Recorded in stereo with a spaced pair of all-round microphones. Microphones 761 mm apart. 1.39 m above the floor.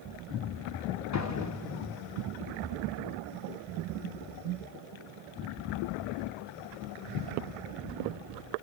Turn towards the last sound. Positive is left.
turn(degrees=20)  # may be behind; listen again after turning